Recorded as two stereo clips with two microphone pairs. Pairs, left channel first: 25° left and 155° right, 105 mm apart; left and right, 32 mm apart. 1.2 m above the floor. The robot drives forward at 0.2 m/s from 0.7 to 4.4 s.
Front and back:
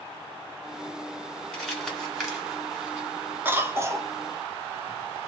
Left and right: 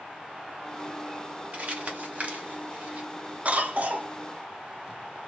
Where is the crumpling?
55° right, 1.1 m; by 3.1 s 75° right, 1.0 m.